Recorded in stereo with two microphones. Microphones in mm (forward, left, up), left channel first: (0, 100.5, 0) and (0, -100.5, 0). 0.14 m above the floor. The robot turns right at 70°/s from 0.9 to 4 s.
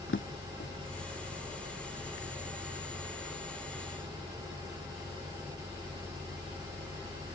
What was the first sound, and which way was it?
A drawer, 75° left (ahead or behind).